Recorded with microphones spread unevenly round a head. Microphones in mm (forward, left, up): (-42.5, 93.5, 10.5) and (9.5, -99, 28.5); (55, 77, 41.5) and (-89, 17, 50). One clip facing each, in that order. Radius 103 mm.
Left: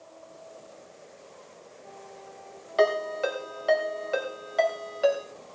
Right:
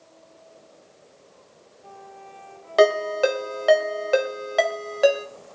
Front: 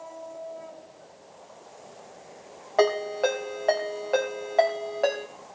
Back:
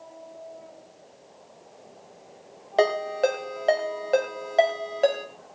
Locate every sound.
2.8 s a ringtone: 90° right, 3 m